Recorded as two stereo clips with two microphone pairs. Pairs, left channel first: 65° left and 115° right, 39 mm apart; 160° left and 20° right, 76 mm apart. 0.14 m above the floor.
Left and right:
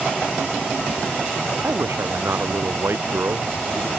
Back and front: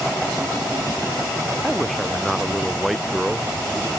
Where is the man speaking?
110° right.